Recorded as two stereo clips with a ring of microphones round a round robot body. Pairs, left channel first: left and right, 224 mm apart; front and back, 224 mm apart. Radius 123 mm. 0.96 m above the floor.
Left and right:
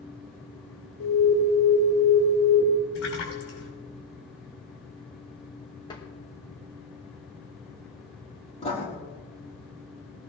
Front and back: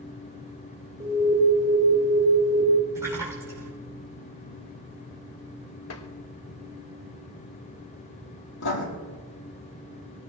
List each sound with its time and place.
1.0 s an alarm: 110° left, 4.5 m
3.0 s a splash: 100° left, 6 m
5.9 s tapping: 15° left, 1.3 m
8.6 s writing: 20° left, 5.5 m